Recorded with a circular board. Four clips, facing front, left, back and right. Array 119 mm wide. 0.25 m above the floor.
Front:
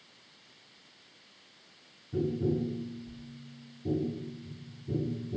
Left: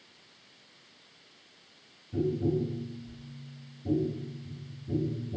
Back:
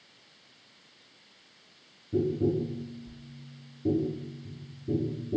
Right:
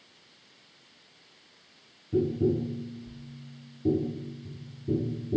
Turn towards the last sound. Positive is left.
turn(degrees=-120)